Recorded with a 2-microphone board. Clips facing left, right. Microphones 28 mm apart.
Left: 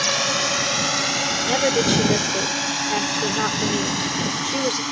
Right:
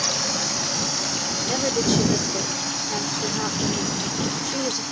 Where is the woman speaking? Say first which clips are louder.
Left 3 dB; 30° left (ahead or behind).